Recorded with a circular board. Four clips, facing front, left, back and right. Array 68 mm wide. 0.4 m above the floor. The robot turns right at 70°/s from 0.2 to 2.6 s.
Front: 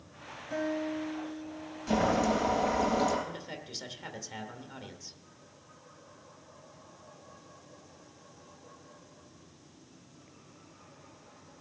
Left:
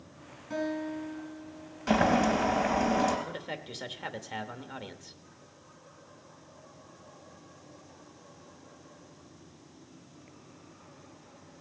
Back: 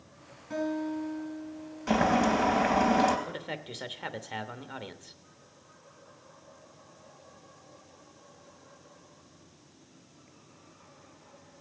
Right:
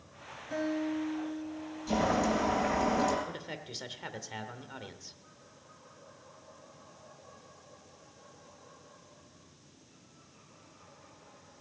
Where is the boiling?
120° left, 3 m; by 3.2 s 170° left, 3 m.